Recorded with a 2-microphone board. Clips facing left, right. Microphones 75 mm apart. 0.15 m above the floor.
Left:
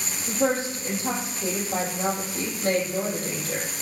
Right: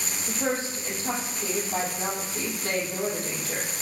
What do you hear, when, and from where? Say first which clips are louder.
0.3 s a woman speaking: left 5 dB; 45° left (ahead or behind), 4.5 m